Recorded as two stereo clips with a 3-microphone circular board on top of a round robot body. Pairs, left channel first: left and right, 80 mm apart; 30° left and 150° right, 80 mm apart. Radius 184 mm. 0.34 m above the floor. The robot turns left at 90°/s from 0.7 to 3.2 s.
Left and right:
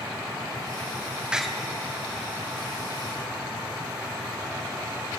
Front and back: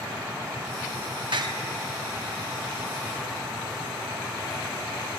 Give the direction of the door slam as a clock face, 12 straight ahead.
6 o'clock.